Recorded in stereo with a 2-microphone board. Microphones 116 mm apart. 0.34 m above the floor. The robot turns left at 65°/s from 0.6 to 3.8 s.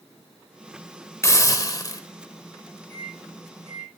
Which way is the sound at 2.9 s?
55° right (ahead or behind).